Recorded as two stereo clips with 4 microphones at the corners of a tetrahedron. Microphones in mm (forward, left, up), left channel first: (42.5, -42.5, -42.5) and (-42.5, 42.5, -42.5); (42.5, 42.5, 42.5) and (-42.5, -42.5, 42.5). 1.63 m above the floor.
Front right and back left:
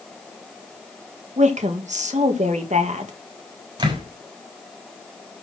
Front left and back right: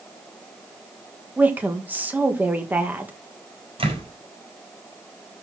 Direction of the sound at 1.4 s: 150° left.